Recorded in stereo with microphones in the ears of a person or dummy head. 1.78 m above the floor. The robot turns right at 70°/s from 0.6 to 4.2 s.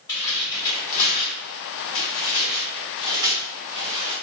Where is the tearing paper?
15° left (ahead or behind), 1.3 m; by 4.1 s 60° right (ahead or behind), 1.3 m.